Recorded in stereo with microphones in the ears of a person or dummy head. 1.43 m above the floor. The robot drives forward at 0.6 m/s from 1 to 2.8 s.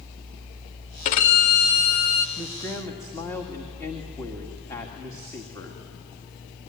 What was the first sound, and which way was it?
A violin, 40° left (ahead or behind).